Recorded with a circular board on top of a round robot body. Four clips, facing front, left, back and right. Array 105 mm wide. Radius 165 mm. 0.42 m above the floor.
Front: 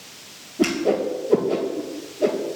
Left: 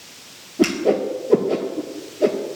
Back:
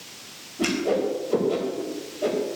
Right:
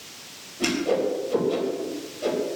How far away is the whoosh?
About 3 m.